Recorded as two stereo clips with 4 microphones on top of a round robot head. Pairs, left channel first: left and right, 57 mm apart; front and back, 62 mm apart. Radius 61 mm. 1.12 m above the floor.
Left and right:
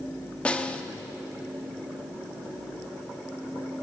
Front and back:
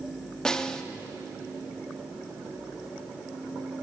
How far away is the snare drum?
About 0.7 m.